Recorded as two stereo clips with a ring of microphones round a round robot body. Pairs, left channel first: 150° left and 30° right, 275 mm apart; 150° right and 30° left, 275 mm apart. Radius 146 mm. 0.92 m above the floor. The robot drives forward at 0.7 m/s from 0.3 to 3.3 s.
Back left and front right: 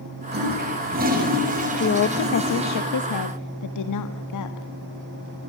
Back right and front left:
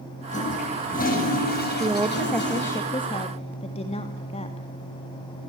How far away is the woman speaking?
About 1.1 m.